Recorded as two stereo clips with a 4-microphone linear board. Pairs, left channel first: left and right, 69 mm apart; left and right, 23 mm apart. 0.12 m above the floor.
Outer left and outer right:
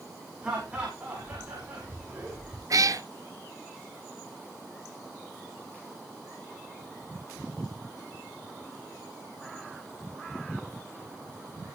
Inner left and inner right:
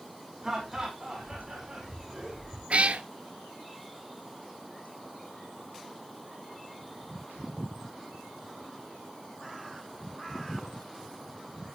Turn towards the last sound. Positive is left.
turn(degrees=-55)  # may be behind; listen again after turning